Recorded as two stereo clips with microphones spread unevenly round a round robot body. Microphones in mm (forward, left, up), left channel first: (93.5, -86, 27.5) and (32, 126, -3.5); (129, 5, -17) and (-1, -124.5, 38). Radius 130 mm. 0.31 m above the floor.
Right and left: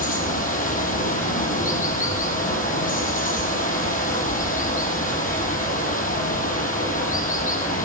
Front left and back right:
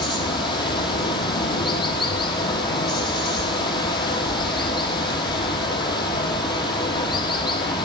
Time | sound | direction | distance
0.0 | running water | 20° right | 7 m